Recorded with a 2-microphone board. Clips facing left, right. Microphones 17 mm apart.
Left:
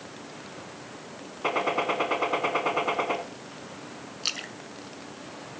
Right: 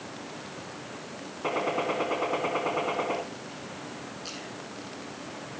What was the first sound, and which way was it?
A gunshot, 25° left (ahead or behind).